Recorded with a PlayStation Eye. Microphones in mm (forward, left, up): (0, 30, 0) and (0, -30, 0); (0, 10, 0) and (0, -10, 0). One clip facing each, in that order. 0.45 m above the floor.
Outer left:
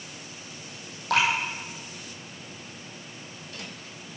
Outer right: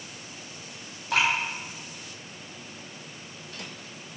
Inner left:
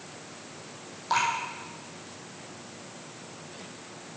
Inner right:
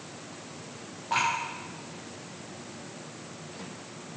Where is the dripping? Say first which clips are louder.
Outer left 1 dB, inner left 1 dB; 65° left (ahead or behind), 3 m.